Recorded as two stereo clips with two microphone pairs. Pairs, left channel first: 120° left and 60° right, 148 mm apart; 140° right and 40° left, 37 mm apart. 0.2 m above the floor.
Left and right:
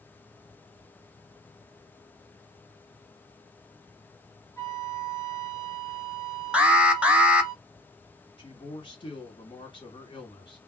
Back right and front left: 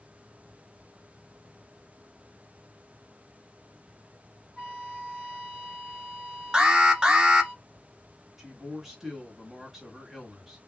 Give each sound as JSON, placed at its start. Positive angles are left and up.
{"t": 4.6, "sound": "a flute", "azimuth_deg": 75, "distance_m": 1.7}
{"t": 6.5, "sound": "an alarm", "azimuth_deg": 10, "distance_m": 0.7}
{"t": 8.4, "sound": "a man speaking", "azimuth_deg": 125, "distance_m": 1.6}